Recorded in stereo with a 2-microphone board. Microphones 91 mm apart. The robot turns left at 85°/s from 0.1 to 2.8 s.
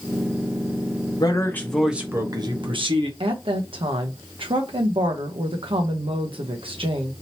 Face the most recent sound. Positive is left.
turn(degrees=-75)  # may be behind; listen again after turning